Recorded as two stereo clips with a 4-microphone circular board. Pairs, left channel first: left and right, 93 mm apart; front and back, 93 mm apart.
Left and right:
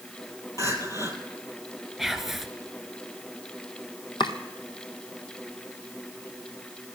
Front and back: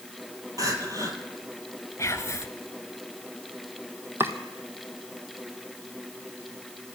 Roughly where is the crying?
Behind left.